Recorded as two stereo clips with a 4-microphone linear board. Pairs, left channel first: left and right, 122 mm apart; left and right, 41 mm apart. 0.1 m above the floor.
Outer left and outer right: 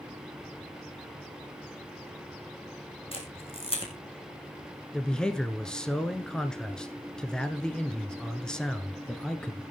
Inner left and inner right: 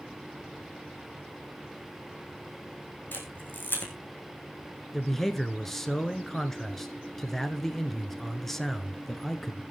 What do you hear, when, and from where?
3.1 s a camera shutter: 50° left (ahead or behind), 3.5 m
4.9 s a man speaking: 5° left (ahead or behind), 1.1 m